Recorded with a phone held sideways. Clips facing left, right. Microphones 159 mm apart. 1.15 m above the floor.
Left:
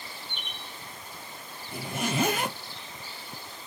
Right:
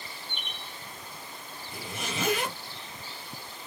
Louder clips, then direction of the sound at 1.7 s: Left 7 dB; 50° left (ahead or behind).